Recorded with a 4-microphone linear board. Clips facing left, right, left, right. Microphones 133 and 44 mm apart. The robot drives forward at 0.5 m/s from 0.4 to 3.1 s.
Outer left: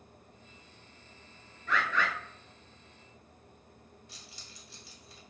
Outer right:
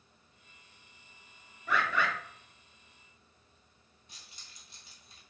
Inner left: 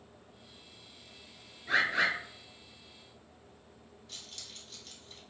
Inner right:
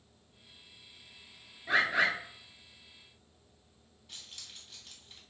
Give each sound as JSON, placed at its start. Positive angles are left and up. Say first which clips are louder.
{"t": 1.7, "sound": "a bird", "louder": "outer right 1 dB, inner right 1 dB", "side_deg": -10, "distance_m": 1.1}
{"t": 4.1, "sound": "keys jangling", "louder": "outer left 6 dB, even", "side_deg": -20, "distance_m": 1.6}